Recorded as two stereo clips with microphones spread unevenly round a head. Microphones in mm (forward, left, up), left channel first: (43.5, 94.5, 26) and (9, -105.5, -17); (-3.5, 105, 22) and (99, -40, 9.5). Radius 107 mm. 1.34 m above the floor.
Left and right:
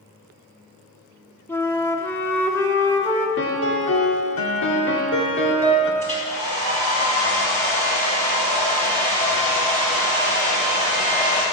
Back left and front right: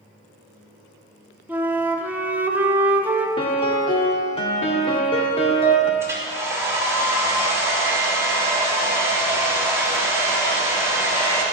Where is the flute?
25° left, 0.9 m.